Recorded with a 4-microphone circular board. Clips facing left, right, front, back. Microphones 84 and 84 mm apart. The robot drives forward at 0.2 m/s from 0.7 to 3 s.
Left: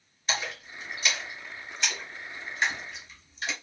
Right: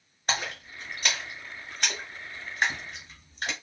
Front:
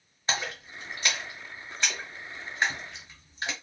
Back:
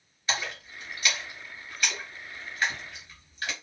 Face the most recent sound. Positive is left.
turn(degrees=-65)